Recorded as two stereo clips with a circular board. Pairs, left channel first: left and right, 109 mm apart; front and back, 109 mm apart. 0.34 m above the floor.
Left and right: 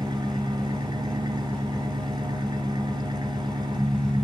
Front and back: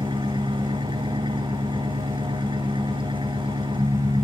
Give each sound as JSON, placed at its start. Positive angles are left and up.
{"t": 0.0, "sound": "an engine running", "azimuth_deg": -140, "distance_m": 1.9}